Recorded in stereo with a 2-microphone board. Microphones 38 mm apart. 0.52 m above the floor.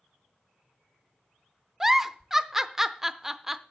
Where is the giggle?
10° right (ahead or behind), 0.5 m.